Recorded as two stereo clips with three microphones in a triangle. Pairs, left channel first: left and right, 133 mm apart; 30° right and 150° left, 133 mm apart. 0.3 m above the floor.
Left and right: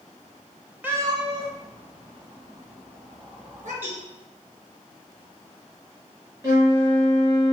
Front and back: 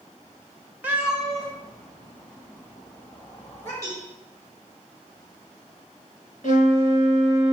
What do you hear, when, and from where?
0.8 s a cat meowing: 150° right, 0.5 m; by 3.7 s 100° right, 2 m
3.8 s a cowbell: 40° right, 1.3 m
6.4 s a flute: 25° right, 1.6 m